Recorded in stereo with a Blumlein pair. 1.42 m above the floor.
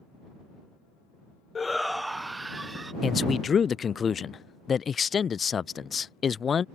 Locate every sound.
1.6 s a shout: 20° left; by 2.9 s 10° right
3.0 s a man speaking: 20° left